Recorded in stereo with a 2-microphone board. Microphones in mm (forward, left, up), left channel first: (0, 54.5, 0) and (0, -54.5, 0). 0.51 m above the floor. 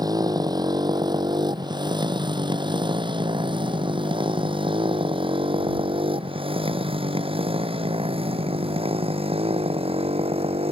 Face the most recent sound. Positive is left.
turn(degrees=-70)  # may be behind; listen again after turning